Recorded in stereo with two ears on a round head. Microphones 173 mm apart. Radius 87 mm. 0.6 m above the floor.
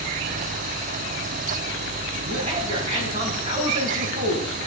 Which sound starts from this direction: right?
A man speaking, at 2.2 s.